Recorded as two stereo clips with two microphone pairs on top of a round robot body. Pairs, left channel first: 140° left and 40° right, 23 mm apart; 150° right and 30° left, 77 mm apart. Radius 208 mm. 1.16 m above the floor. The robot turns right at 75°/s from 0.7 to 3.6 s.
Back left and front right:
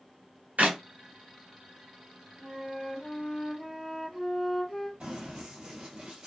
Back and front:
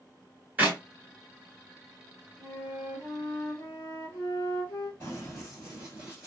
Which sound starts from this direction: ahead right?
A clap, at 0.6 s.